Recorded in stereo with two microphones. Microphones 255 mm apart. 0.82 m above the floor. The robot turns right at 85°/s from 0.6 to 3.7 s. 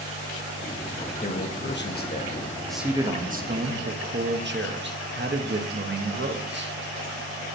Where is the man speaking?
50° left, 0.8 m; by 6.7 s 100° right, 0.8 m.